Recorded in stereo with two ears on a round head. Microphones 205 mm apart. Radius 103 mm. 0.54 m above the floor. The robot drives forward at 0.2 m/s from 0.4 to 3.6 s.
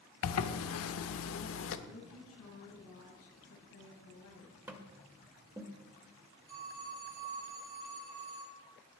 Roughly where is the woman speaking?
Left.